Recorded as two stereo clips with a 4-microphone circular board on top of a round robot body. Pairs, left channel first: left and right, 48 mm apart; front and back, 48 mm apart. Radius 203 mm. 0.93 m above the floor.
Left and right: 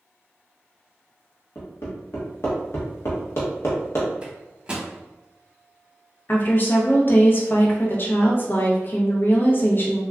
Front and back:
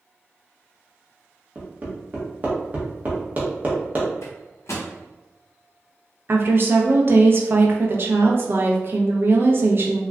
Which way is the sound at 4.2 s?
20° right.